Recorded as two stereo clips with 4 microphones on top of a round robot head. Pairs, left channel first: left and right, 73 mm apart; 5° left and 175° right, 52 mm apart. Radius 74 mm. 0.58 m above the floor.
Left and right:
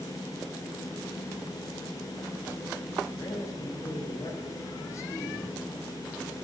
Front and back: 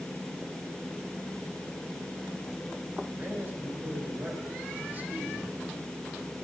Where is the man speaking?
135° left, 4.5 m.